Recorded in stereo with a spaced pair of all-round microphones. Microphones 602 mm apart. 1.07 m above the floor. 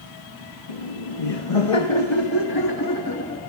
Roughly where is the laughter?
Left.